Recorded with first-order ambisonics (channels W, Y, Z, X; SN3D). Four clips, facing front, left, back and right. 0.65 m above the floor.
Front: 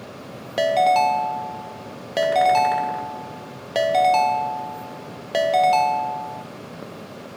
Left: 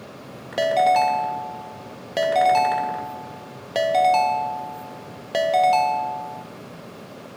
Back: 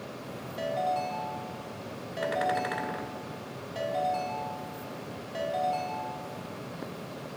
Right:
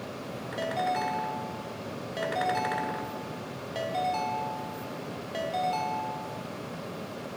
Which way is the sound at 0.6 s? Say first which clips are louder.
Left 12 dB, front 13 dB; 35° left.